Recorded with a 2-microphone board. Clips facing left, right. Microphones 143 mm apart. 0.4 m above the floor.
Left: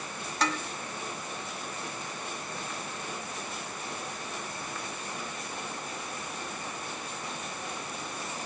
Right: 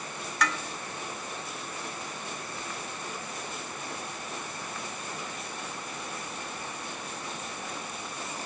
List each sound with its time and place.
0.4 s dishes clattering: 30° left (ahead or behind), 0.8 m